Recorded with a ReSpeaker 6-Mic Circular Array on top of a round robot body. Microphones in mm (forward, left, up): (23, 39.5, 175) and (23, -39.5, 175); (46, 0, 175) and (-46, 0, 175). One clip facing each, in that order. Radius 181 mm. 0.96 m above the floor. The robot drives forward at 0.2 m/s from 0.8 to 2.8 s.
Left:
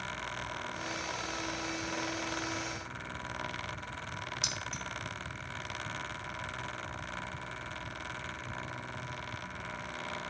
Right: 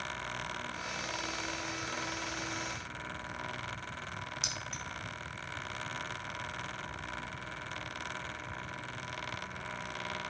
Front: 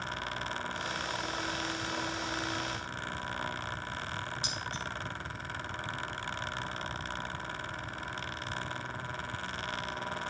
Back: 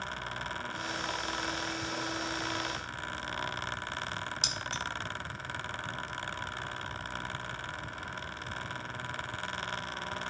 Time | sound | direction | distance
4.4 | keys jangling | straight behind | 0.9 m